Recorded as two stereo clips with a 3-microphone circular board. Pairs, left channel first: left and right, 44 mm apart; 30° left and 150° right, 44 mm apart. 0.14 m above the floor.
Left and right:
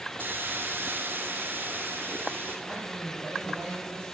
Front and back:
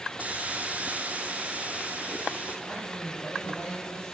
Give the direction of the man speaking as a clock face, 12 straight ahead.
1 o'clock.